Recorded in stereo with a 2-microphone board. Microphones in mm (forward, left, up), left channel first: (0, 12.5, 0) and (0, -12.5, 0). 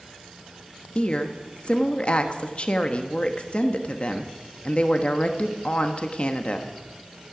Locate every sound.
0.9 s a woman speaking: 50° left (ahead or behind), 1.2 m